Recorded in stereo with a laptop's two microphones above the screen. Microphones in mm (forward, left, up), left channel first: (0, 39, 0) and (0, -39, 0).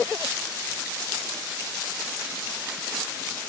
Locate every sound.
Only background noise.